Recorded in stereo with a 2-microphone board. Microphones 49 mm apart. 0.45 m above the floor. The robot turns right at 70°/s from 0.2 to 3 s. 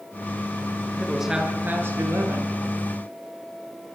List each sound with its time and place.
1.0 s a man speaking: 175° left, 6.5 m; by 2.5 s 80° right, 6.5 m